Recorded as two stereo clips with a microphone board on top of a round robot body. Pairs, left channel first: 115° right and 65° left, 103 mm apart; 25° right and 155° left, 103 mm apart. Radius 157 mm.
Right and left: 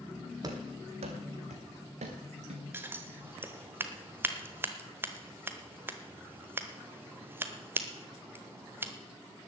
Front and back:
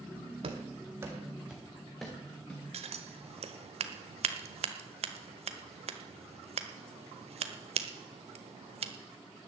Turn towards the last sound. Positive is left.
turn(degrees=140)